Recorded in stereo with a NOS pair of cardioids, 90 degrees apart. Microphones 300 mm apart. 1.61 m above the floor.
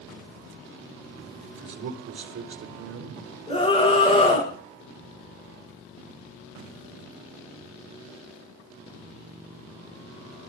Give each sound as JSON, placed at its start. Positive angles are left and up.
{"t": 1.6, "sound": "a man speaking", "azimuth_deg": -50, "distance_m": 3.5}
{"t": 3.5, "sound": "a scream", "azimuth_deg": 20, "distance_m": 6.5}